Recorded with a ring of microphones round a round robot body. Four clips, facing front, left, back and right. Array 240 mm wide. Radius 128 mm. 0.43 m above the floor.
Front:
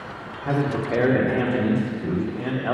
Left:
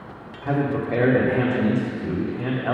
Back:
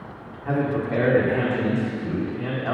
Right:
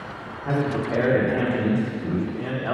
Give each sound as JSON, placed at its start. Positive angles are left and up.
{"t": 0.5, "sound": "a man speaking", "azimuth_deg": 40, "distance_m": 0.9}